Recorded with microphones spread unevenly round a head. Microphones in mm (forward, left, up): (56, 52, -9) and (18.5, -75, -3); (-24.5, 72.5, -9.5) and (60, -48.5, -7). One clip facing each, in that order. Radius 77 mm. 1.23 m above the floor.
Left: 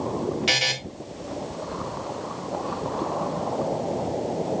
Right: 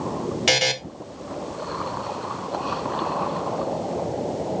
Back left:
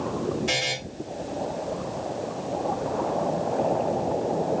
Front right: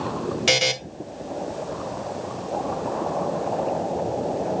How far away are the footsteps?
No footsteps in this recording.